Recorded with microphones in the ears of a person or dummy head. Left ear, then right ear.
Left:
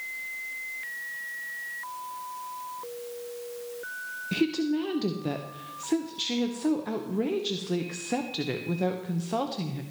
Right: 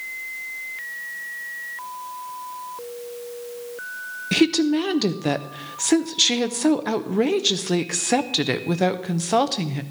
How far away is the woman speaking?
About 0.8 m.